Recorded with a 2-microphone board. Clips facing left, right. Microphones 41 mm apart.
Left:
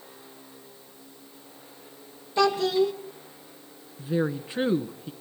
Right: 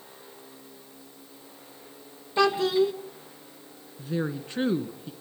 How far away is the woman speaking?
About 1.2 m.